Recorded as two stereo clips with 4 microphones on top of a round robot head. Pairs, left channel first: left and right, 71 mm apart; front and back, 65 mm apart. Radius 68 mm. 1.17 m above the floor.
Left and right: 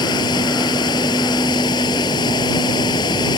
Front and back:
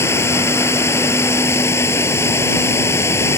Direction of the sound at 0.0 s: 45° left.